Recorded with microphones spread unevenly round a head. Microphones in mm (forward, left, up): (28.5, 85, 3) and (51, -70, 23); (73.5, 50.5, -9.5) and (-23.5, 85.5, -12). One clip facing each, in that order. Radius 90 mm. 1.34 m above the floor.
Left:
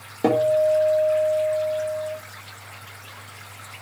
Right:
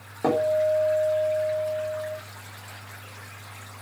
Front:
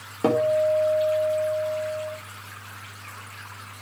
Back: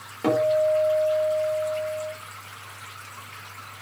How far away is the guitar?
About 4 m.